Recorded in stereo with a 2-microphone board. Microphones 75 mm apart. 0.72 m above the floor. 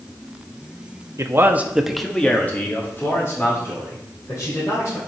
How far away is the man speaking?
About 0.9 m.